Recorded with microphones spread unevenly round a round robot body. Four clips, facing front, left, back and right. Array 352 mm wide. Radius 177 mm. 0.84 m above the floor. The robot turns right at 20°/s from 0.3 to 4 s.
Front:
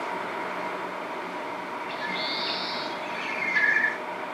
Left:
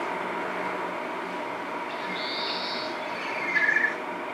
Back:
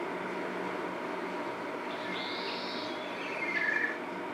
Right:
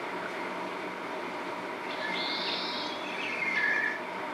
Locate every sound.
1.9 s a bird: 15° right, 5 m; by 4.0 s 25° left, 5 m